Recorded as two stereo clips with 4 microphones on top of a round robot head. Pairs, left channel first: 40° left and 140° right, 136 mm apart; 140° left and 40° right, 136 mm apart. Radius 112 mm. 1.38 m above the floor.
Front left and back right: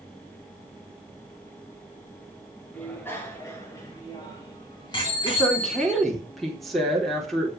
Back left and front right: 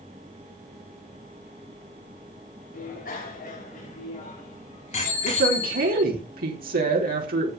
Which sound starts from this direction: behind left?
A bicycle bell, at 2.7 s.